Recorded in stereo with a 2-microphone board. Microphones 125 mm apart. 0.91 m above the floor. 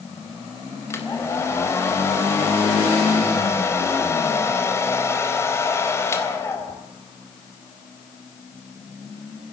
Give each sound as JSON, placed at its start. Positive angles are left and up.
{"t": 0.9, "sound": "a hair dryer", "side_deg": 20, "distance_m": 4.0}